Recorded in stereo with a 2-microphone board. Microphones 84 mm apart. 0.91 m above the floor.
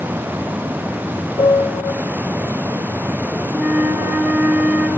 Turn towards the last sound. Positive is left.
turn(degrees=-10)  # may be behind; listen again after turning